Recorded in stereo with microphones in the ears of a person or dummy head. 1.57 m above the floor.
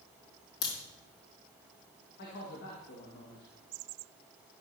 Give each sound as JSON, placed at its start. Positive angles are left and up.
{"t": 0.6, "sound": "a crack", "side_deg": 25, "distance_m": 3.5}
{"t": 2.2, "sound": "a man speaking", "side_deg": 50, "distance_m": 1.5}